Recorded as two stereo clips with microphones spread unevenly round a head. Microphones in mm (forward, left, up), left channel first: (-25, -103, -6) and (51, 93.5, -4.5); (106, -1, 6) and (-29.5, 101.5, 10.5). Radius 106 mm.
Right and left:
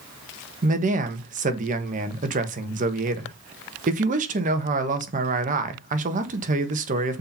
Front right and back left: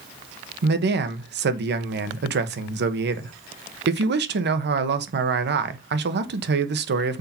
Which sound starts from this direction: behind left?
A man speaking, at 0.6 s.